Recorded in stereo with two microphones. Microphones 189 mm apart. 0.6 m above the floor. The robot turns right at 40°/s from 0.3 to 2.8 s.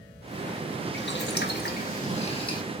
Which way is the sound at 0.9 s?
90° left.